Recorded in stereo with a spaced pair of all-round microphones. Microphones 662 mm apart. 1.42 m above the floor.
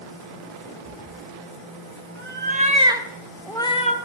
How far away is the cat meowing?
About 1.6 m.